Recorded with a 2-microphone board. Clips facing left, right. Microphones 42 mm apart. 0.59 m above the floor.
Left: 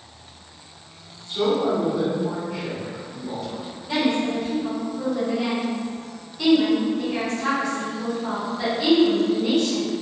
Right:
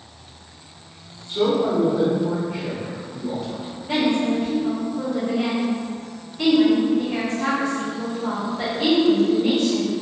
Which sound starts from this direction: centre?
A man speaking, at 1.3 s.